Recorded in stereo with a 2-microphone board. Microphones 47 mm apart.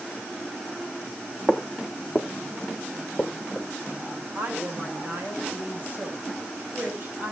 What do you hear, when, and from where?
1.5 s footsteps: centre (ahead or behind), 1.8 m; by 3.7 s 10° left (ahead or behind), 3 m
4.3 s a woman speaking: 40° right (ahead or behind), 6 m